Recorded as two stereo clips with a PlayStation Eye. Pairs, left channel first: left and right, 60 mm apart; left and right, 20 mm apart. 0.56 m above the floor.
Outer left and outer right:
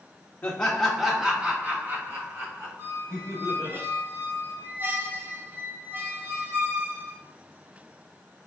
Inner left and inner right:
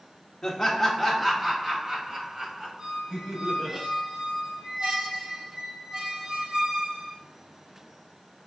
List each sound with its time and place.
0.4 s laughter: 20° left (ahead or behind), 0.7 m; by 3.8 s 60° right (ahead or behind), 1.7 m
2.8 s a squeak: 40° right (ahead or behind), 0.7 m